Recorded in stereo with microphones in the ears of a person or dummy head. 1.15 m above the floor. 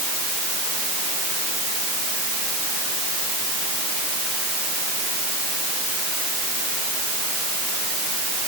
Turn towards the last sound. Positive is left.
No sound to turn to.